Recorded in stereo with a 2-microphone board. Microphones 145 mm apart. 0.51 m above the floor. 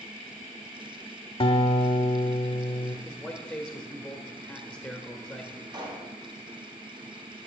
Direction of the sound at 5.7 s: 30° right (ahead or behind).